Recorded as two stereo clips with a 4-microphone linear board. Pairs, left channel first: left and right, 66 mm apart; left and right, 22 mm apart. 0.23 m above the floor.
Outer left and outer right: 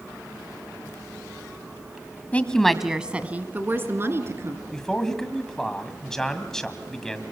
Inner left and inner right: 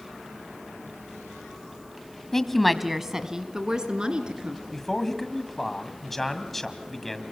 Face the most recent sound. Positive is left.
turn(degrees=10)  # may be behind; listen again after turning